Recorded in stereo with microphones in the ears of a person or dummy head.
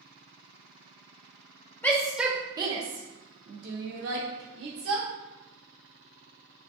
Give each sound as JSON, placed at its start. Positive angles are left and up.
{"t": 1.8, "sound": "a shout", "side_deg": 5, "distance_m": 0.8}